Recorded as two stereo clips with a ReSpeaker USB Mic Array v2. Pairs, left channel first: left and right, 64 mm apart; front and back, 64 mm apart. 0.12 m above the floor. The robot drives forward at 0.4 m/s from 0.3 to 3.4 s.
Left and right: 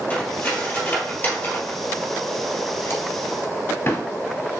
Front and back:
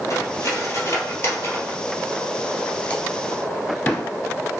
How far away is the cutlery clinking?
About 1.9 m.